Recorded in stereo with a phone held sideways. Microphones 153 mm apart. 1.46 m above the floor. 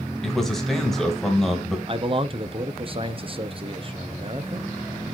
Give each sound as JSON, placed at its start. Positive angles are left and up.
{"t": 0.2, "sound": "a man speaking", "side_deg": 0, "distance_m": 1.9}
{"t": 1.9, "sound": "a man speaking", "side_deg": -40, "distance_m": 0.7}